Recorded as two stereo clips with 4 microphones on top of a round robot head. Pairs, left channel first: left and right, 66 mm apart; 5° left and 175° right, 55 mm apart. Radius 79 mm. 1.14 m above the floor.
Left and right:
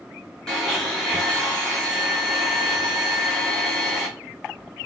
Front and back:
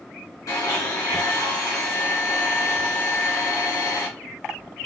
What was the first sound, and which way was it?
A blender, 15° left.